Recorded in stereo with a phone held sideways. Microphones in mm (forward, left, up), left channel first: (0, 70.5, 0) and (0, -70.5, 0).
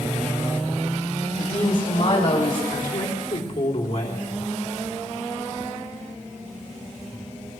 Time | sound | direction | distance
1.4 | a woman speaking | 65° left (ahead or behind) | 1.8 m
2.7 | a woman speaking | 80° left | 3 m